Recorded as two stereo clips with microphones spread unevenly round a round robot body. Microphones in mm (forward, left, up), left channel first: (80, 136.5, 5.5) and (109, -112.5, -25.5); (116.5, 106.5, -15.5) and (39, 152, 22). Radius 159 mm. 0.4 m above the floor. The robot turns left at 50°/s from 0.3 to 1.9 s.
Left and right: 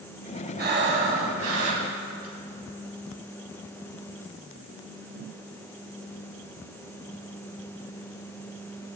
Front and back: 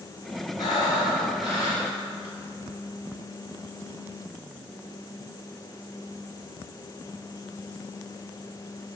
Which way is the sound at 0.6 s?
40° right.